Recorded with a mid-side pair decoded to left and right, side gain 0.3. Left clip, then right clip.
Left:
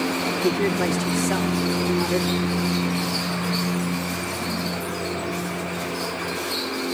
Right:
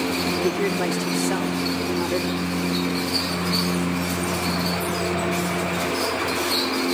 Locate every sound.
0.4 s a woman speaking: straight ahead, 4.5 m